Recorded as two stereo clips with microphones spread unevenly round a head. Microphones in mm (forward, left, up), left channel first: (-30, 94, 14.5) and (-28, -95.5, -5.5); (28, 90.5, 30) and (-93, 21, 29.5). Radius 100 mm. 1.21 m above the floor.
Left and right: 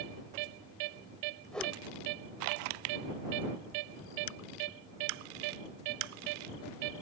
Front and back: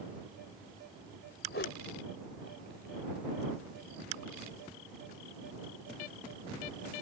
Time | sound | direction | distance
1.5 | a whoosh | 5° left | ?